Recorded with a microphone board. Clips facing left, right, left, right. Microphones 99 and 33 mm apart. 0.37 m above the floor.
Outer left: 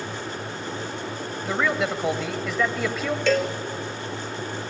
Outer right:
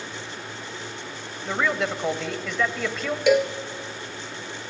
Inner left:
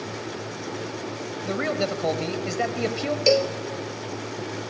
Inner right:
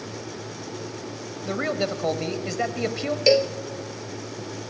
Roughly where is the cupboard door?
No cupboard door in this recording.